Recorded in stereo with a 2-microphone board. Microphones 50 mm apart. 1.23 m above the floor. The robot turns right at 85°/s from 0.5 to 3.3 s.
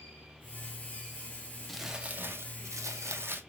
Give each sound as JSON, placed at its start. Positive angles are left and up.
{"t": 1.7, "sound": "crumpling", "azimuth_deg": 175, "distance_m": 0.6}